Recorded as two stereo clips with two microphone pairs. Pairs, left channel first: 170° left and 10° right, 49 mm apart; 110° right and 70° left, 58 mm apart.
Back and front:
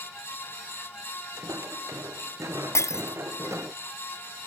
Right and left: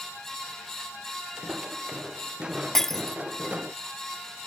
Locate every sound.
1.4 s footsteps: 10° right; by 3.8 s straight ahead
2.8 s breaking glass: 165° left